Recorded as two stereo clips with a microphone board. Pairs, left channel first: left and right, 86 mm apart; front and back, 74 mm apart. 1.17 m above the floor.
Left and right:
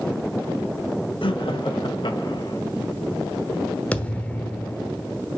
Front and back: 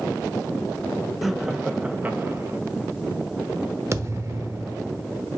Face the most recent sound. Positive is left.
turn(degrees=160)